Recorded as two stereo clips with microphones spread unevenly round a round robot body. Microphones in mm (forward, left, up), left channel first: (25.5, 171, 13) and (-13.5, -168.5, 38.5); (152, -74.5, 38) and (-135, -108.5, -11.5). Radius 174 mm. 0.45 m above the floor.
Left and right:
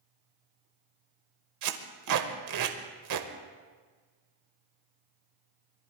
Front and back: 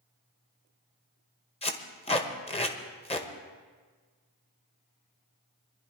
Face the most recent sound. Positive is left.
turn(degrees=-65)